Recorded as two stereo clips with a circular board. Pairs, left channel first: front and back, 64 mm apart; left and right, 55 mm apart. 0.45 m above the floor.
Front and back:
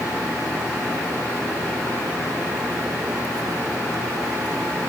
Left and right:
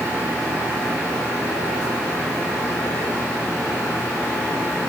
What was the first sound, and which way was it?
Only background noise.